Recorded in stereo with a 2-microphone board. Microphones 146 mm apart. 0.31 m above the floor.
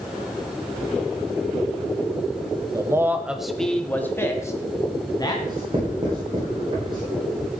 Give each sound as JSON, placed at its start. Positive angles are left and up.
{"t": 2.7, "sound": "a man speaking", "side_deg": -25, "distance_m": 1.0}
{"t": 5.5, "sound": "writing", "side_deg": -30, "distance_m": 8.0}